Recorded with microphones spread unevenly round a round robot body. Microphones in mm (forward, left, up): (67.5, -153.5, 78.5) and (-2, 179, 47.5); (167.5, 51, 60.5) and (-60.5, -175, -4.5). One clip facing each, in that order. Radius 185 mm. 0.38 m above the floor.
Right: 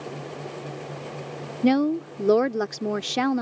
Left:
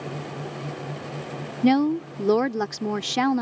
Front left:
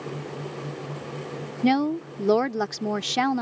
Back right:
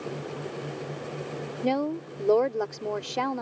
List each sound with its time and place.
1.6 s a woman speaking: 60° left